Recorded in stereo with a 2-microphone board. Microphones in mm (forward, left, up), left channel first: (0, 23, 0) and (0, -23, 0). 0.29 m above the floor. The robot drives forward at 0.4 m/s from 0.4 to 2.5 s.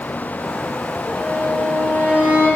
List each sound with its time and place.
1.1 s a violin: 30° right (ahead or behind), 5 m